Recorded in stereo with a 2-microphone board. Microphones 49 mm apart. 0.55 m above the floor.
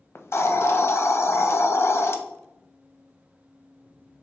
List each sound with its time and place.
0.1 s a hiss: 60° left (ahead or behind), 0.5 m